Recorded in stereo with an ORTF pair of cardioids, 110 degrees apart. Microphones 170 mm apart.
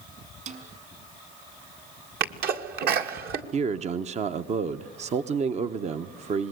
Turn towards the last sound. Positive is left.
turn(degrees=-40)